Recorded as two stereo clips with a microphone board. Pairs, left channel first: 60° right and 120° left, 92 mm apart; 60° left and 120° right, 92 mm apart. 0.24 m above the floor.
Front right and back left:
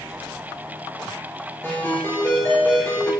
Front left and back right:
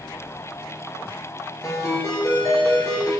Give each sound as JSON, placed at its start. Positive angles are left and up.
{"t": 1.6, "sound": "a ringtone", "azimuth_deg": 5, "distance_m": 3.0}